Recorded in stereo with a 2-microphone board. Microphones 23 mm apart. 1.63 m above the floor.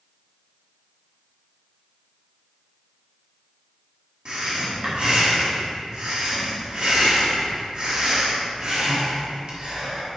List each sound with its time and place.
4.2 s breathing: 40° right (ahead or behind), 1.7 m